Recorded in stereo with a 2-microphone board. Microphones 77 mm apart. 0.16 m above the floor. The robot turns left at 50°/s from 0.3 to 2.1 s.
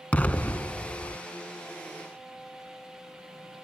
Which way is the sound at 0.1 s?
150° left.